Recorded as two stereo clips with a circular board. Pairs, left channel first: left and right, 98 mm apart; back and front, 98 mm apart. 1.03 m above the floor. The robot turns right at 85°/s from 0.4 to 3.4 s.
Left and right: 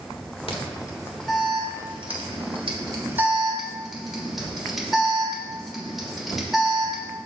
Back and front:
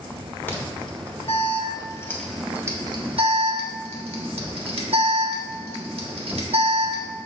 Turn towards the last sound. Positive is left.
turn(degrees=-5)